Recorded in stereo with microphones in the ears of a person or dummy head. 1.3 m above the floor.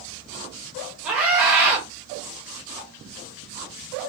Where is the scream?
10° right (ahead or behind), 0.9 m.